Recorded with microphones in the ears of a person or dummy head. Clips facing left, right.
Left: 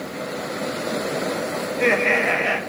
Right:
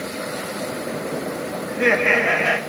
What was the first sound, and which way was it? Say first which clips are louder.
Laughter: right 1 dB; centre (ahead or behind).